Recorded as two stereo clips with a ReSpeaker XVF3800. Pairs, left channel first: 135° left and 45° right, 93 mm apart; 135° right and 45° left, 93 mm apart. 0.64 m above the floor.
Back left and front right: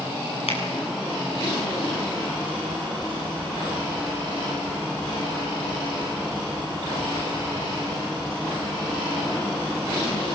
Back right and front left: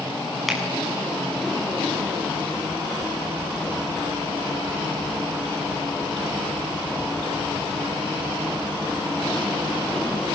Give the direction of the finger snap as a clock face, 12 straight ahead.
8 o'clock.